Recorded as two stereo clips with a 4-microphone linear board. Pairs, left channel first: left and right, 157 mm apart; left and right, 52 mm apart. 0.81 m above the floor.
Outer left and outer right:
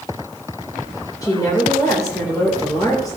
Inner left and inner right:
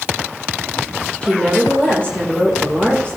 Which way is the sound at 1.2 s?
25° left (ahead or behind).